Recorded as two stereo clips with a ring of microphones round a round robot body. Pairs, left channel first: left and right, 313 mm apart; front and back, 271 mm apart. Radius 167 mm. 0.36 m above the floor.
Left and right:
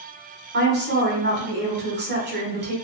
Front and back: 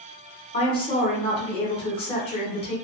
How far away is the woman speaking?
About 1.0 m.